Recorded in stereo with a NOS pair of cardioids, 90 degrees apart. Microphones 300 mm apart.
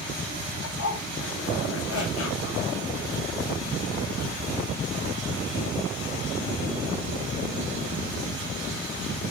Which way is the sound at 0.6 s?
50° left.